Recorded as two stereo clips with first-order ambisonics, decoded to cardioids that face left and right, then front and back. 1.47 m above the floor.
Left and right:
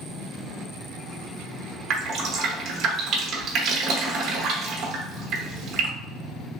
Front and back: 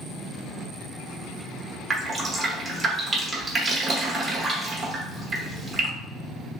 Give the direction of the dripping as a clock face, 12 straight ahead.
4 o'clock.